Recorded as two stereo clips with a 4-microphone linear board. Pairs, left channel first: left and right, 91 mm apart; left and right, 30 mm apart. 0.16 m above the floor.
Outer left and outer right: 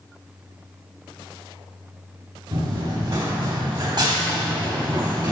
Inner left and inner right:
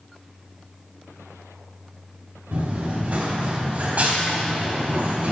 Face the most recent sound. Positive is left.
turn(degrees=-60)  # may be behind; listen again after turning